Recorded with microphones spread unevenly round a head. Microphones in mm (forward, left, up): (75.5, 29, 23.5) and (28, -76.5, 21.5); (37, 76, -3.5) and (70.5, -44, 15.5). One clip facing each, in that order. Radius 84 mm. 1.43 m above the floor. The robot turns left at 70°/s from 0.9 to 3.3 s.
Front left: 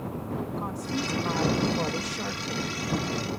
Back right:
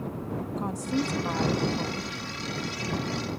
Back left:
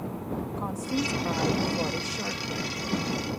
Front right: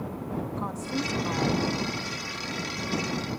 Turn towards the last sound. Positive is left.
turn(degrees=20)